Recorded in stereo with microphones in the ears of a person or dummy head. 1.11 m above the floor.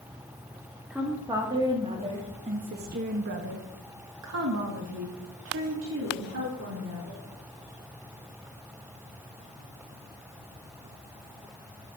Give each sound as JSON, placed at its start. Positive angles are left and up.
{"t": 0.9, "sound": "a woman speaking", "side_deg": -5, "distance_m": 2.5}